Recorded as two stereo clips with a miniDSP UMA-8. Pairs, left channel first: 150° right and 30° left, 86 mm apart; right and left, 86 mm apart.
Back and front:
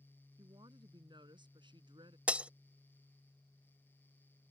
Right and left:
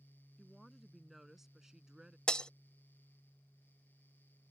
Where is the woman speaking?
Straight ahead; by 2.2 s 10° left.